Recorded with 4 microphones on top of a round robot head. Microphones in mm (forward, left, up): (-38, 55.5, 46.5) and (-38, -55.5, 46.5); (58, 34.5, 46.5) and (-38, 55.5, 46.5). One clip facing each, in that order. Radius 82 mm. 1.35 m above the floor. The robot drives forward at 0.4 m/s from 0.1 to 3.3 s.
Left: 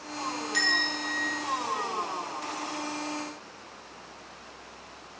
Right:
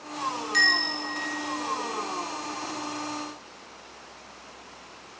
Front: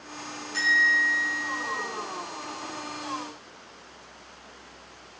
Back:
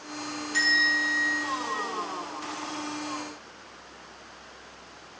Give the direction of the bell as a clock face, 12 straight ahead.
5 o'clock.